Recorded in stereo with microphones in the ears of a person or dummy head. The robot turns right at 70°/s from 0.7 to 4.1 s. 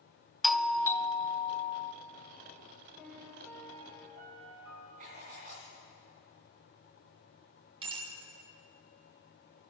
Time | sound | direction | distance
0.4 | a doorbell | straight ahead | 0.7 m
3.0 | a piano | 175° left | 7.5 m
5.0 | writing | 35° right (ahead or behind) | 2.5 m
7.8 | a bicycle bell | 30° right (ahead or behind) | 5 m